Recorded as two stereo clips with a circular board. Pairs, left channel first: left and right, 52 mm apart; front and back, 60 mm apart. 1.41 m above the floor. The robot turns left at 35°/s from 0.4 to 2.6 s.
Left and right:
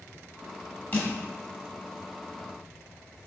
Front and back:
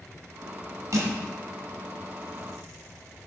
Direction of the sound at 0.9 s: 140° left.